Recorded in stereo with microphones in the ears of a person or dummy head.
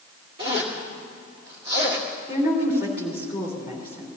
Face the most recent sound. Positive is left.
turn(degrees=-10)  # may be behind; listen again after turning